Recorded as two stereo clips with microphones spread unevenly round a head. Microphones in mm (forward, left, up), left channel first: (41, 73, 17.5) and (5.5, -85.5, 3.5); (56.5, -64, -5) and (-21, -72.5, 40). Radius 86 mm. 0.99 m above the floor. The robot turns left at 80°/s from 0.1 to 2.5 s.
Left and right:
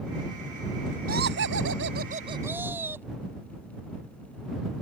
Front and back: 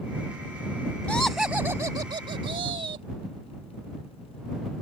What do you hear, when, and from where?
1.1 s laughter: 70° right; by 3.1 s straight behind